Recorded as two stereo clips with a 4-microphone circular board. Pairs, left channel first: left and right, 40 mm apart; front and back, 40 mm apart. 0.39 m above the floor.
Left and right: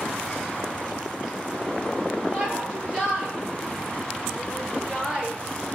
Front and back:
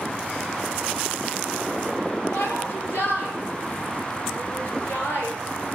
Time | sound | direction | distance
2.3 | a shout | 25° right | 8 m